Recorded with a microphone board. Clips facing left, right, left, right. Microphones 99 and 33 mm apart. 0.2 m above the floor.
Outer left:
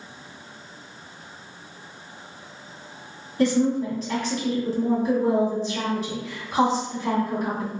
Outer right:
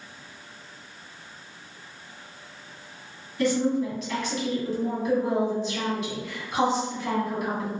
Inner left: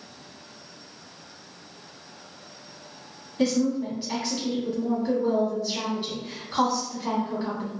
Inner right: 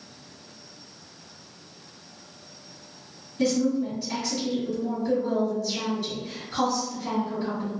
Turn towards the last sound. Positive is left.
turn(degrees=35)  # may be behind; listen again after turning